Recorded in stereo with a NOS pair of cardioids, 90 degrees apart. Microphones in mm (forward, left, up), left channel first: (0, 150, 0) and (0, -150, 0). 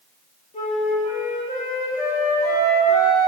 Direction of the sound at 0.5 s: 25° left.